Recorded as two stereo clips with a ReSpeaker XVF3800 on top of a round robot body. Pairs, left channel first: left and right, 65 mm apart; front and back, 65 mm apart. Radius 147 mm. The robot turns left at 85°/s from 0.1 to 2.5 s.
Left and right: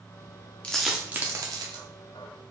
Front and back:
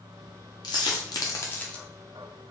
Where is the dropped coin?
20° left, 0.6 m; by 1.8 s 85° right, 0.6 m.